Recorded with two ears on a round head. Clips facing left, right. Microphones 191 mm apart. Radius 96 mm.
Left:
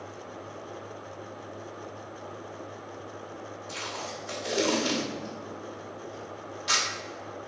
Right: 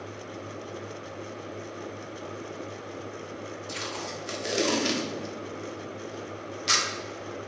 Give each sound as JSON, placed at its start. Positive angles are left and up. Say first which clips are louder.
{"t": 3.7, "sound": "tape being pulled", "louder": "right 1 dB", "side_deg": -35, "distance_m": 1.1}